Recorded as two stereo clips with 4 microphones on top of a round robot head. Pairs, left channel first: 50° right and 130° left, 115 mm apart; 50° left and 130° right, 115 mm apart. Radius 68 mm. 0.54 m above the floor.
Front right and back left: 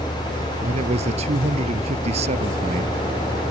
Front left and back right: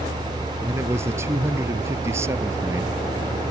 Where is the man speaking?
160° left.